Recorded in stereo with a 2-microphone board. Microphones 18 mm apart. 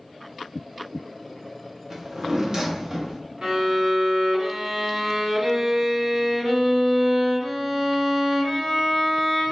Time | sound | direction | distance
1.9 | a drawer | 35° right (ahead or behind) | 0.8 m
3.4 | a violin | 55° right (ahead or behind) | 1.4 m